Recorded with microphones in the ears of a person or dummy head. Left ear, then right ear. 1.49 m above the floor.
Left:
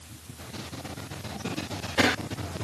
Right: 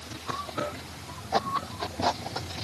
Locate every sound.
Only background noise.